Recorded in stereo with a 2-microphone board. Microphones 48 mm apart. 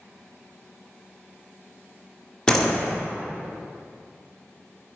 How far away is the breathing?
I don't hear breathing.